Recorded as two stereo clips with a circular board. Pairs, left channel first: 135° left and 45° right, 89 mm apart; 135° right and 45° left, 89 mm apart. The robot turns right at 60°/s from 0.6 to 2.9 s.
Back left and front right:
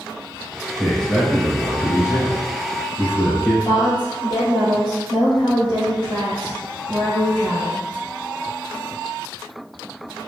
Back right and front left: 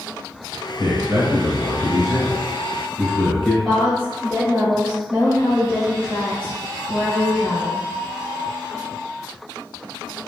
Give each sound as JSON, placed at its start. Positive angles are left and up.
{"t": 0.8, "sound": "a man speaking", "azimuth_deg": 45, "distance_m": 1.6}
{"t": 3.6, "sound": "a woman speaking", "azimuth_deg": 145, "distance_m": 1.9}